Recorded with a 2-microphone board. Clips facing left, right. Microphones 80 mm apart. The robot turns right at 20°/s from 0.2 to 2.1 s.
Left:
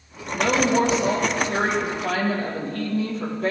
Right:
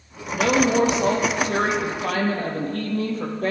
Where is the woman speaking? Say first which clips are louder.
Right 1 dB; 90° right, 4.5 m; by 3.5 s 55° right, 4.5 m.